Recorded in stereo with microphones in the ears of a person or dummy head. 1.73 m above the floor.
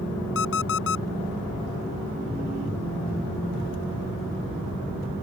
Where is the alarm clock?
80° left.